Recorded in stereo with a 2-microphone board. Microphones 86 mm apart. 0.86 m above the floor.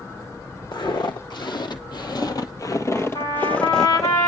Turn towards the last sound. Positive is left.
turn(degrees=60)  # may be behind; listen again after turning